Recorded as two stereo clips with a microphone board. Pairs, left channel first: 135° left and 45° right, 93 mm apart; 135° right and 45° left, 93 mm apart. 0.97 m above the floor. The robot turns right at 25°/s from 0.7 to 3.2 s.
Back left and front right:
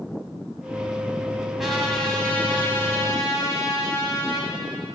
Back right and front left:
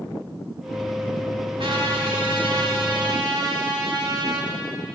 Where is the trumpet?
40° left, 2.5 m; by 4.5 s 80° left, 2.5 m.